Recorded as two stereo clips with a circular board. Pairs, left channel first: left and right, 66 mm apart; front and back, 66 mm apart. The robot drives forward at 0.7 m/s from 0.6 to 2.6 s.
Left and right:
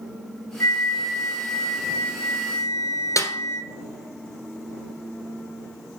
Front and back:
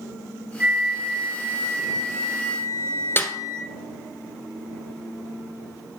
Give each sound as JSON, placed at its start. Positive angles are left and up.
{"t": 0.6, "sound": "a flute", "azimuth_deg": 115, "distance_m": 1.8}
{"t": 3.2, "sound": "a snare drum", "azimuth_deg": 55, "distance_m": 1.2}